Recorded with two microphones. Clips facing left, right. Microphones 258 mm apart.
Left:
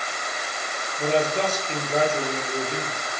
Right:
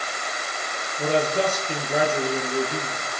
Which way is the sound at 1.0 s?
10° right (ahead or behind).